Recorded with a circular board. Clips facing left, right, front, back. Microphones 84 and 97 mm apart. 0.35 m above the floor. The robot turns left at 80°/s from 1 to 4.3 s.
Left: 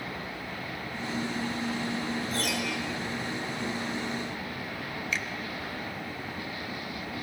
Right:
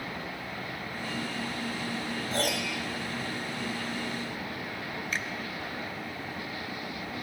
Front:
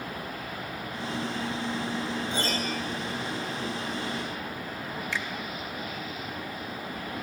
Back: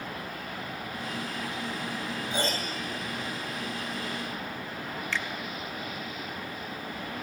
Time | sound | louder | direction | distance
2.3 | a piano | right 1 dB, front 1 dB | 105° right | 2.5 m
5.1 | a finger snap | left 1 dB, back 1 dB | 70° right | 0.7 m